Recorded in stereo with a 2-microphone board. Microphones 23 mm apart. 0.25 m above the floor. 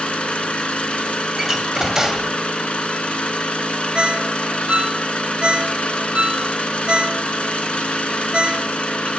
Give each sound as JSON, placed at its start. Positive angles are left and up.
{"t": 0.0, "sound": "an engine running", "side_deg": 60, "distance_m": 0.8}
{"t": 1.4, "sound": "a door slam", "side_deg": -20, "distance_m": 0.7}
{"t": 4.0, "sound": "a ringtone", "side_deg": -60, "distance_m": 0.7}